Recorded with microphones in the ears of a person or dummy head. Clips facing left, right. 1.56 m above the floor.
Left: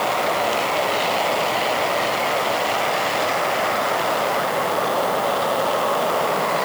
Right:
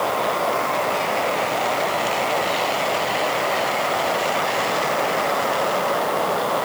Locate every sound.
Only background noise.